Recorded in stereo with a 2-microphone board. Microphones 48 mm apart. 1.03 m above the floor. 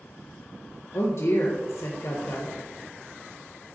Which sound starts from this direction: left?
A woman speaking, at 0.9 s.